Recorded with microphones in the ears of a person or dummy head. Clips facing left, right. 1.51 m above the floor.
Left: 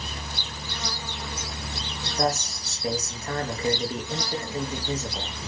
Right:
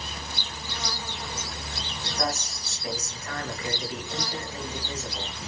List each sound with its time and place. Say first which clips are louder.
2.2 s a man speaking: left 5 dB; 25° left (ahead or behind), 0.9 m